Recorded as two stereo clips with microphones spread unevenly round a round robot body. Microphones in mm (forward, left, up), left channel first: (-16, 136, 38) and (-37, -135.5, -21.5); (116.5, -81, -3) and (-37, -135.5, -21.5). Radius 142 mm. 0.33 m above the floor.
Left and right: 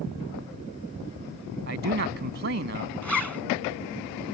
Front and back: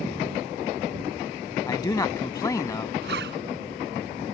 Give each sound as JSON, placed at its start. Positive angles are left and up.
{"t": 1.7, "sound": "a man speaking", "azimuth_deg": -50}
{"t": 3.0, "sound": "a zipper", "azimuth_deg": 175}